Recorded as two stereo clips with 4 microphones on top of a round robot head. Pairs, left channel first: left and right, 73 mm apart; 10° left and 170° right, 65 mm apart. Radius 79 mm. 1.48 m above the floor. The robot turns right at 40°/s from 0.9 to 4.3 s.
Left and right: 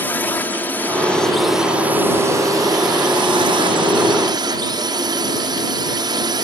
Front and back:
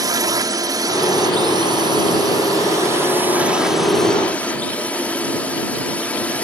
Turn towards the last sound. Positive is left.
turn(degrees=-65)